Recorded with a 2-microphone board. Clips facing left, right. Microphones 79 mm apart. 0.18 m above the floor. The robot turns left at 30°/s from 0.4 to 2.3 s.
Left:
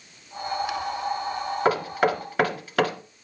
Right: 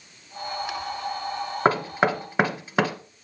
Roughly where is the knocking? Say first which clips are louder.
Right 1 dB; right.